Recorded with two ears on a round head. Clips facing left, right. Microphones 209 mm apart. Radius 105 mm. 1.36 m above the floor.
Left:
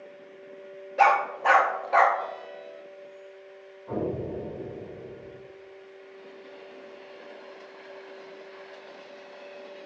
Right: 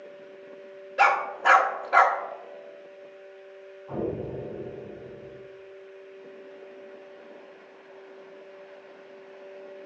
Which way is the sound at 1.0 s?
20° right (ahead or behind).